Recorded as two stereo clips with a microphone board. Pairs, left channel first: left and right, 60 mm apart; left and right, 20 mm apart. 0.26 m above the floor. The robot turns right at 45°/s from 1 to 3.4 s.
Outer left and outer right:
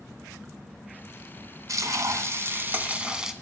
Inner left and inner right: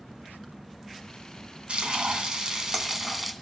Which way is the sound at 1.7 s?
85° right.